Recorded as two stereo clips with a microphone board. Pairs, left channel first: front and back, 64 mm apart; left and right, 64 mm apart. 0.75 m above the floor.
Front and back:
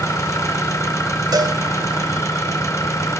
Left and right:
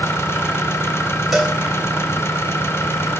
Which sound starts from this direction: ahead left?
An engine running, at 0.0 s.